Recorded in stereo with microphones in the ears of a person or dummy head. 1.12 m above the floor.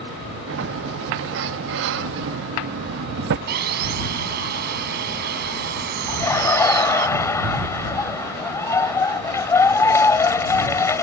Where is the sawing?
60° right (ahead or behind).